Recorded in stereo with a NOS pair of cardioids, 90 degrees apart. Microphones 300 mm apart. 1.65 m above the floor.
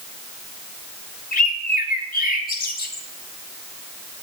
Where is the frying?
I don't hear frying.